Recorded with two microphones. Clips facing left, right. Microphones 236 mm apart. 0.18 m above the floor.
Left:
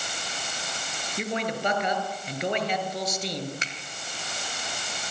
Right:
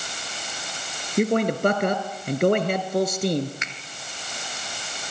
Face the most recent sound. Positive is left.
turn(degrees=35)  # may be behind; listen again after turning